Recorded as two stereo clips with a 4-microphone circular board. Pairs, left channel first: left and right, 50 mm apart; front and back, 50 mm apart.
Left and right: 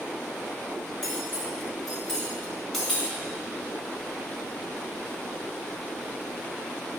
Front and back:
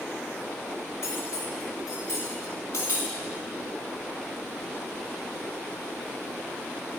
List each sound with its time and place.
1.0 s cutlery clinking: 5° left, 1.8 m